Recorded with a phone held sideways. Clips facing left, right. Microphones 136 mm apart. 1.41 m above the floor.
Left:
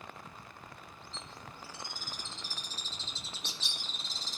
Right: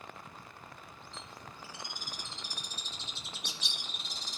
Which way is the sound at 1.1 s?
15° right (ahead or behind).